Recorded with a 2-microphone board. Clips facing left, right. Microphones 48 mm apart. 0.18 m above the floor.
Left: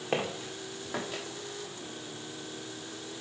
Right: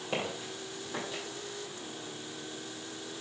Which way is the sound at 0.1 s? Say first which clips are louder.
Left 3 dB; 50° left (ahead or behind).